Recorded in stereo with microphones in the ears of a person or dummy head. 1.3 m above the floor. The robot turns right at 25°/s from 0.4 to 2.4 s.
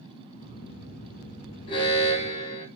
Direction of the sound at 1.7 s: 30° left (ahead or behind).